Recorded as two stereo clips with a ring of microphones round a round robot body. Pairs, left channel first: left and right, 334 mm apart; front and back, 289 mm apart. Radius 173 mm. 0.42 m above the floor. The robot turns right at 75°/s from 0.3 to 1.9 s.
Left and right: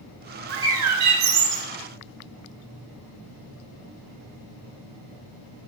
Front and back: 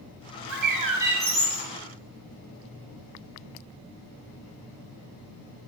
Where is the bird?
145° right, 0.8 m; by 1.6 s 55° right, 0.8 m.